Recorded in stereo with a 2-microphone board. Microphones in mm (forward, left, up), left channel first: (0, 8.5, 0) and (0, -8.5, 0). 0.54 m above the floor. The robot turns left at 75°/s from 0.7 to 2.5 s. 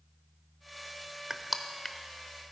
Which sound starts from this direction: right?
Crushing, at 1.3 s.